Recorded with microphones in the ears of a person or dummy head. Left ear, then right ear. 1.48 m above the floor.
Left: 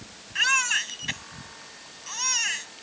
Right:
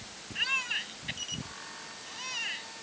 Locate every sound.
0.3 s a baby crying: 50° left (ahead or behind)